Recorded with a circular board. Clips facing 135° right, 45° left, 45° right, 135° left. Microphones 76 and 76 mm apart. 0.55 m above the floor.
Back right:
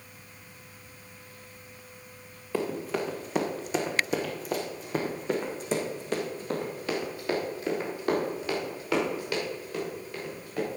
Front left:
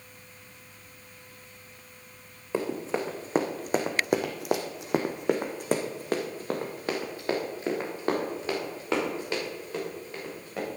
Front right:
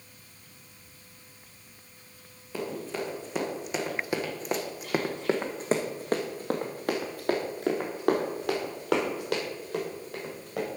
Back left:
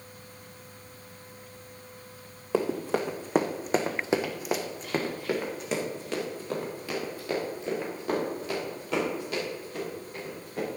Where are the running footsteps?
115° left, 2.5 m; by 10.7 s 20° right, 7.5 m.